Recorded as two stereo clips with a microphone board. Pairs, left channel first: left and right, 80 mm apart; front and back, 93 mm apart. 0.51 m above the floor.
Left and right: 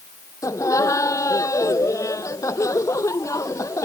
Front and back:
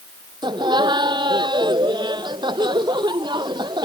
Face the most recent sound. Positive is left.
turn(degrees=140)